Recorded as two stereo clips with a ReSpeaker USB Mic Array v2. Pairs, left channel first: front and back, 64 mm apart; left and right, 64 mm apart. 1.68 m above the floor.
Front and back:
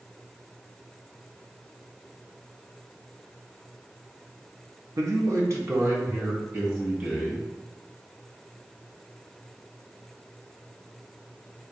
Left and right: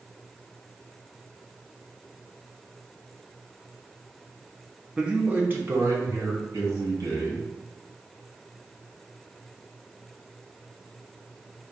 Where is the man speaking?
170° right, 0.9 m; by 7.5 s 120° right, 2 m.